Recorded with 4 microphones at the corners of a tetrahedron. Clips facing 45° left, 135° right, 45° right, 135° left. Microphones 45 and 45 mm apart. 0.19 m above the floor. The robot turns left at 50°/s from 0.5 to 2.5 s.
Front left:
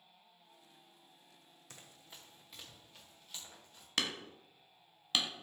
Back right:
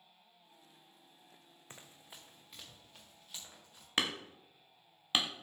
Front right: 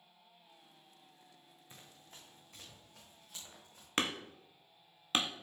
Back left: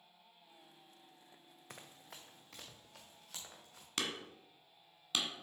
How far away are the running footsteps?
About 0.9 m.